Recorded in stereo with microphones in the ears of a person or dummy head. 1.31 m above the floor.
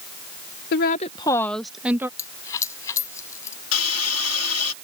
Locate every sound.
0.7 s a woman speaking: 60° left (ahead or behind); by 2.1 s 10° right (ahead or behind)
2.2 s a dropped coin: 20° left (ahead or behind)
3.7 s a hiss: 80° left